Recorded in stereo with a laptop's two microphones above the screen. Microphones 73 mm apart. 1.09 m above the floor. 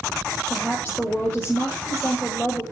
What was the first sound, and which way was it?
A woman speaking, 20° left (ahead or behind).